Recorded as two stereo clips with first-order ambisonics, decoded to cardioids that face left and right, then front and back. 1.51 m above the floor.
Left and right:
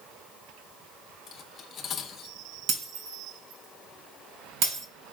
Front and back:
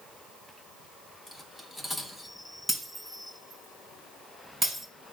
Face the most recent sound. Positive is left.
turn(degrees=-95)